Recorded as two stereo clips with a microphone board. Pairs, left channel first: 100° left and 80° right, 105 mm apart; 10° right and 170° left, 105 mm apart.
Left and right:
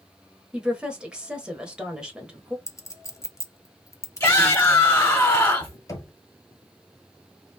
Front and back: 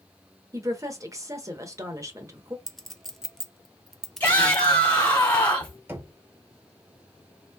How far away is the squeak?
I don't hear a squeak.